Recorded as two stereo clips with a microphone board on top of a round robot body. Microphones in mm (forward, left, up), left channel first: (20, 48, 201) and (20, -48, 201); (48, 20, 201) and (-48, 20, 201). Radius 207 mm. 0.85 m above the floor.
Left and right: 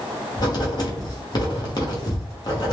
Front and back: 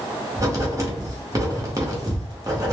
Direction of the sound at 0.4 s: 130° left.